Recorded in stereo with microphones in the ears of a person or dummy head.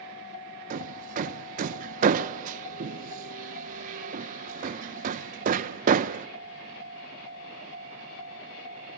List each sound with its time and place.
0.7 s hammering: 45° right (ahead or behind), 0.6 m